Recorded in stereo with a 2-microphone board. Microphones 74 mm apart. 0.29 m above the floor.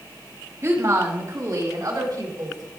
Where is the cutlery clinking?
No cutlery clinking in this recording.